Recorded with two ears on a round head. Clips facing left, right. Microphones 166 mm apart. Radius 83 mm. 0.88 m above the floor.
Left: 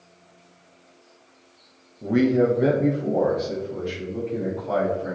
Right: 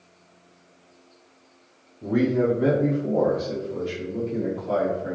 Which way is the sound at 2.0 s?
30° left (ahead or behind).